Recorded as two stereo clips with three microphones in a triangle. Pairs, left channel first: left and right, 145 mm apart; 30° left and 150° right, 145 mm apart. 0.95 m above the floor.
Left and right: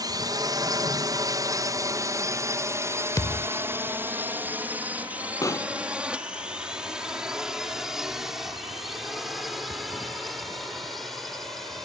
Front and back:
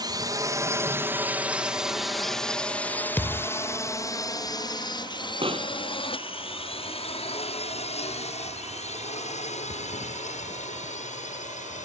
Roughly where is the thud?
Left.